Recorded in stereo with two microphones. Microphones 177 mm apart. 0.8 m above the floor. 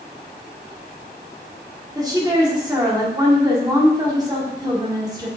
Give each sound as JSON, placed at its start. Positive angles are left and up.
{"t": 1.9, "sound": "a woman speaking", "side_deg": -20, "distance_m": 2.0}